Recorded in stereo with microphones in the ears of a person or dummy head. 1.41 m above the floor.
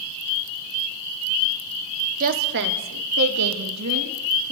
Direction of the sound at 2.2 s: 45° right (ahead or behind).